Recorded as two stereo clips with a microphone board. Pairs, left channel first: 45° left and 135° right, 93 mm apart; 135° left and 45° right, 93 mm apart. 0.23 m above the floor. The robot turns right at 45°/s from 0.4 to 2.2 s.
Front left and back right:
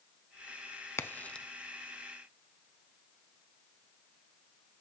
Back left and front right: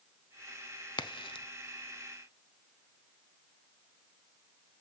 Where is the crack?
105° left, 0.5 m; by 1.5 s 125° left, 0.5 m.